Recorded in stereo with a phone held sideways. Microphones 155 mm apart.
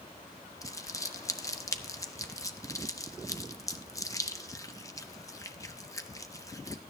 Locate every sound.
0.6 s crumpling: 20° left (ahead or behind), 0.6 m